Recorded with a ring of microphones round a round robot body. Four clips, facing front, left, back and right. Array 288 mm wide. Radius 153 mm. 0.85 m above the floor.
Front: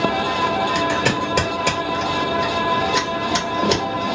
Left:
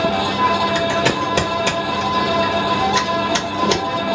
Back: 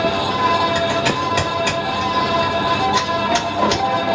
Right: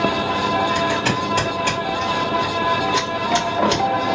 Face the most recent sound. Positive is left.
turn(degrees=55)